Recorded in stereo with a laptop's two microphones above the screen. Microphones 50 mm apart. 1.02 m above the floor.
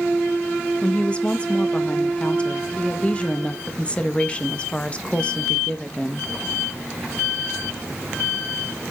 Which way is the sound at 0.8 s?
20° left (ahead or behind).